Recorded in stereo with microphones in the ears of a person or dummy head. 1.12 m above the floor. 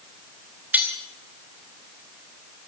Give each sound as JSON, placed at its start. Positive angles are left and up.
{"t": 0.7, "sound": "cutlery clinking", "side_deg": -10, "distance_m": 1.9}